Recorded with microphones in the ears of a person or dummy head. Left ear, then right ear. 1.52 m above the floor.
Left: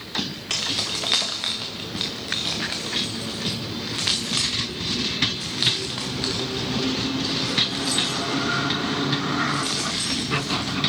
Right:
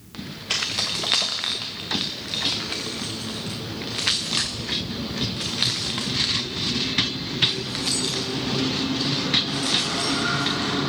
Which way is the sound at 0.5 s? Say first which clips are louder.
Right 1 dB; centre (ahead or behind).